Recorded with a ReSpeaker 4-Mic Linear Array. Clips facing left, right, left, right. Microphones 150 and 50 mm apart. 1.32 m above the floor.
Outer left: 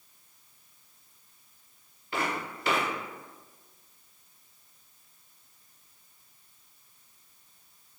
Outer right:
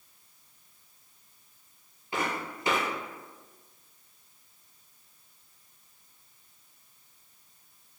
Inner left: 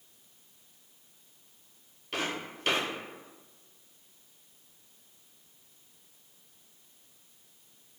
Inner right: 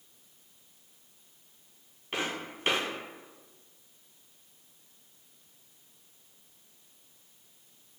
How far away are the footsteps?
About 1.4 m.